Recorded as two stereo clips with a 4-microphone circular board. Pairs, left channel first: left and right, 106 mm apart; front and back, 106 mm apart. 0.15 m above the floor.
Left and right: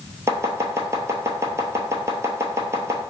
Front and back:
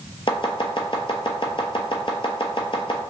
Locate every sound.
0.3 s chopping: 30° right, 0.7 m